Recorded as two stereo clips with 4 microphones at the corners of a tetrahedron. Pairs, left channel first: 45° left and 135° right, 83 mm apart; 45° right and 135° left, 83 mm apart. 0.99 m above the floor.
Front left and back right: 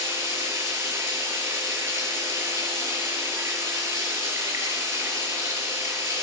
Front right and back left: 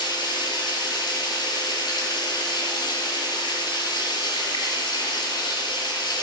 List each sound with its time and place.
0.0 s running water: 75° right, 6.5 m